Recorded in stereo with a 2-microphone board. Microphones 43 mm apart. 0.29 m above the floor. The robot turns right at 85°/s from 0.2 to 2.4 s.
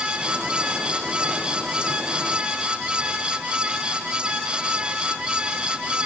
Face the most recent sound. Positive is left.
No sound to turn to.